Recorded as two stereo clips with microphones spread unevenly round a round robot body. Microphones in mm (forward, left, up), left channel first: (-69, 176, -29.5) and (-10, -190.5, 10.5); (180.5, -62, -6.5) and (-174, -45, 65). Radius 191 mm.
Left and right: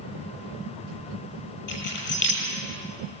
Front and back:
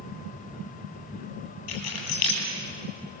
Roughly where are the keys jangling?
Ahead left.